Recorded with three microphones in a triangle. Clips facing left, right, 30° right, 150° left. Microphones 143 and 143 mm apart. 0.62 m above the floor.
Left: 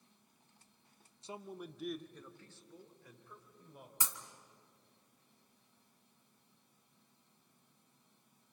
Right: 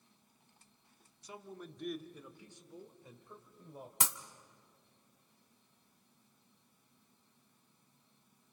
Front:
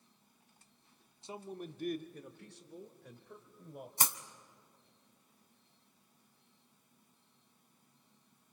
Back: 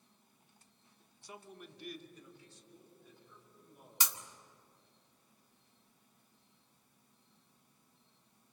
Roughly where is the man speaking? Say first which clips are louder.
Left 2 dB, front 7 dB; ahead left.